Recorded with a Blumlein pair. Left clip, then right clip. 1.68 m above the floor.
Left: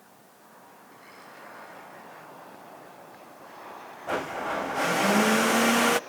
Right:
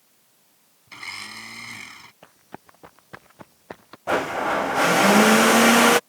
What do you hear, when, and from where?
0.9 s a blender: 50° right
2.2 s running footsteps: 55° right
4.1 s a blender: 20° right